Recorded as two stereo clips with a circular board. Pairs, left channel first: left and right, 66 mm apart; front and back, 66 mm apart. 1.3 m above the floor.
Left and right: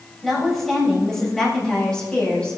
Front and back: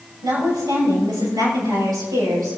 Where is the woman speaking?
Straight behind, 6.5 m; by 2.6 s 165° left, 6.5 m.